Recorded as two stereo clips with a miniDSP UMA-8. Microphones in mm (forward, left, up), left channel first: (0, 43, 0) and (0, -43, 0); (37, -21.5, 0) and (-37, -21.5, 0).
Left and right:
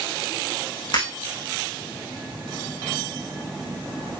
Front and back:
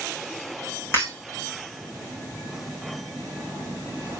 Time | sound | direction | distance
0.9 | breaking glass | 55° left | 5 m